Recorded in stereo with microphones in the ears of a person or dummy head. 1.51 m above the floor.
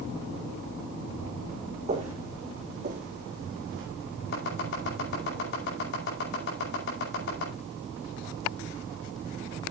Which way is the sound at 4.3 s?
60° left (ahead or behind).